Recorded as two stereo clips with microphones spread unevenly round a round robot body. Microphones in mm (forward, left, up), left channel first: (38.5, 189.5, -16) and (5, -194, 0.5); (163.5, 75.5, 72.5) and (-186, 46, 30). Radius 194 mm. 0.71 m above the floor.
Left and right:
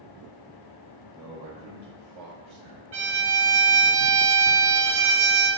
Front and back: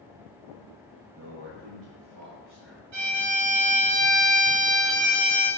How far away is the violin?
About 1.5 m.